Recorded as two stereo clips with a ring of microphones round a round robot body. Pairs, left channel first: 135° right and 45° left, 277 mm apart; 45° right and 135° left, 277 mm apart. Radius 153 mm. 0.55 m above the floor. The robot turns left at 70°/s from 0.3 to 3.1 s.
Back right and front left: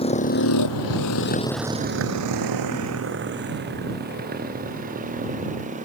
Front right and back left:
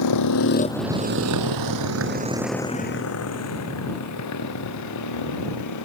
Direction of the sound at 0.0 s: 65° right.